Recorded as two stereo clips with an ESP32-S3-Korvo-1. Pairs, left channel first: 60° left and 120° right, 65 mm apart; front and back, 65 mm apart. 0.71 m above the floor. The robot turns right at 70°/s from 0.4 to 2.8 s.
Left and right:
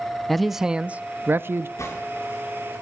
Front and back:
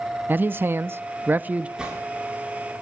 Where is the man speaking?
150° left, 0.6 m; by 1.7 s 120° right, 0.6 m.